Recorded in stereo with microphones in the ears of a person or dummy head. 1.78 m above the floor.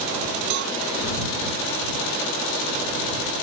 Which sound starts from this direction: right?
A cowbell, at 0.5 s.